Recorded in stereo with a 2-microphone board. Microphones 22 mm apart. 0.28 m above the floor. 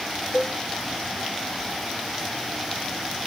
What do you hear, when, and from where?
0.3 s a cowbell: 75° left (ahead or behind), 1.8 m